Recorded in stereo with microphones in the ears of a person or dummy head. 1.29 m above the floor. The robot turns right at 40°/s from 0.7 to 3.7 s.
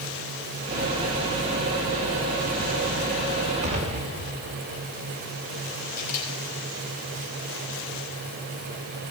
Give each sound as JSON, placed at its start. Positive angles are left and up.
{"t": 3.6, "sound": "an explosion", "side_deg": -40, "distance_m": 2.5}
{"t": 6.0, "sound": "a camera shutter", "side_deg": 45, "distance_m": 5.5}